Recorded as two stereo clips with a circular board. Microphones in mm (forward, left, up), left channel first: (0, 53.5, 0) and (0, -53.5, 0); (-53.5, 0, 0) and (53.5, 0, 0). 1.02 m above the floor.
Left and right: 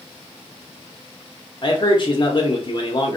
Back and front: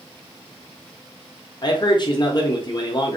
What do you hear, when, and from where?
1.6 s a man speaking: 135° left, 0.9 m